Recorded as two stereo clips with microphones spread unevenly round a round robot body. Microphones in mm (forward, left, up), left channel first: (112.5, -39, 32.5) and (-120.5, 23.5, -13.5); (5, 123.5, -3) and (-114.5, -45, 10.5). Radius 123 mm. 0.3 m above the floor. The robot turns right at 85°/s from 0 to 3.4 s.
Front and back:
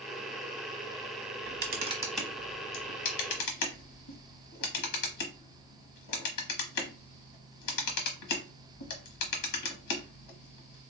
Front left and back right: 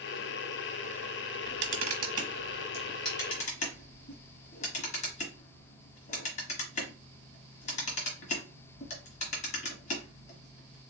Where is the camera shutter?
170° right, 1.1 m; by 10.8 s 5° right, 1.1 m.